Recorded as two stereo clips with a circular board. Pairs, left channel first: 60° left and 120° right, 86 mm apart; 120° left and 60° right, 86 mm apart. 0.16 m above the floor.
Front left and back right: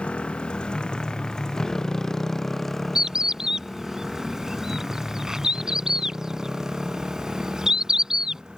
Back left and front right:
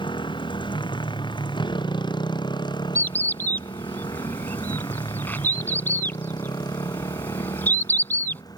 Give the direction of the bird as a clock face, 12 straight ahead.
7 o'clock.